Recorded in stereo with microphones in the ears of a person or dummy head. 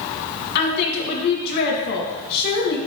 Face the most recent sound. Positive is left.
turn(degrees=55)  # may be behind; listen again after turning